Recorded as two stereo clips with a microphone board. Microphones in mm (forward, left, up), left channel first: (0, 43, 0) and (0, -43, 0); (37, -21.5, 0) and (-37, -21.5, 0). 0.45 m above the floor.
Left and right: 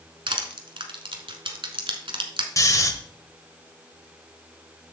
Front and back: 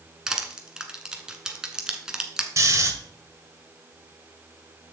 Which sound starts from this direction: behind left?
Snoring, at 2.6 s.